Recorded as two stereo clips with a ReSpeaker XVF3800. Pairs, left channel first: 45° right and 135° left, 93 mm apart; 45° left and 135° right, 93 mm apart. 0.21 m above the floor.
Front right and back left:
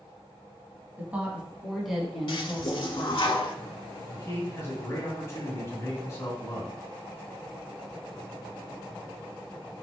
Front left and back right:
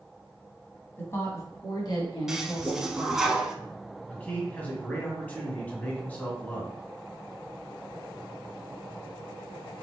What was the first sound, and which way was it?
A woman speaking, 90° left.